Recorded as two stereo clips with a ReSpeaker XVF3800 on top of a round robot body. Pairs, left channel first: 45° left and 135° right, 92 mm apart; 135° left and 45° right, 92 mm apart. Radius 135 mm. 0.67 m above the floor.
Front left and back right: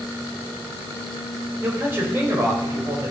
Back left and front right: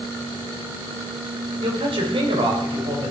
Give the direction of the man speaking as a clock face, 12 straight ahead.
2 o'clock.